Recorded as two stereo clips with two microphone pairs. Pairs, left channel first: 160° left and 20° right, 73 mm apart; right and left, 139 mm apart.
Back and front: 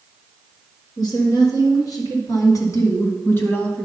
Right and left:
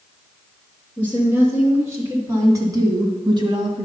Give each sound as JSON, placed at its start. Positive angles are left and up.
{"t": 1.0, "sound": "a woman speaking", "azimuth_deg": 165, "distance_m": 3.5}